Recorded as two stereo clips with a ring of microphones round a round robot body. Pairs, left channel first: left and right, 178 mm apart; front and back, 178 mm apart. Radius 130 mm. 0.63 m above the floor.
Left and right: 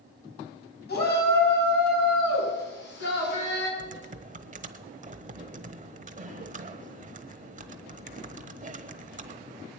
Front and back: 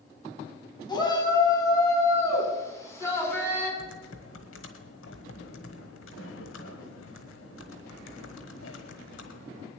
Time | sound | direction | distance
0.9 | a shout | 65° left | 6 m
3.8 | typing on a keyboard | 45° right | 1.1 m